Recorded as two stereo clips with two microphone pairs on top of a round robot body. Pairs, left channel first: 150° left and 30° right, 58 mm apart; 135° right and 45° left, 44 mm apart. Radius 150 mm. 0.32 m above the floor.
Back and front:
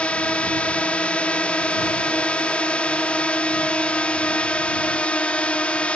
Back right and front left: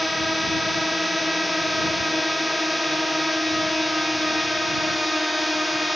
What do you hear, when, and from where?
0.0 s a drone: 100° left